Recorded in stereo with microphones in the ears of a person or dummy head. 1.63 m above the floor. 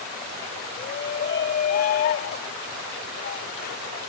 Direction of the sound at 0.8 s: 45° left (ahead or behind).